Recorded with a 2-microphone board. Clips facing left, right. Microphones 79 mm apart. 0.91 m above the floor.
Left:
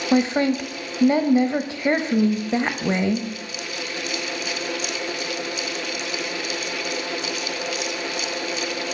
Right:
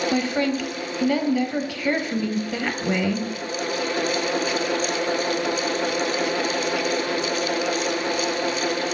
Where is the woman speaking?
25° left (ahead or behind), 0.7 m.